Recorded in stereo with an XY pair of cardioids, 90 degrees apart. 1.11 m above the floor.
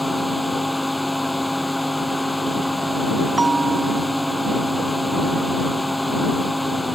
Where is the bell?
20° right.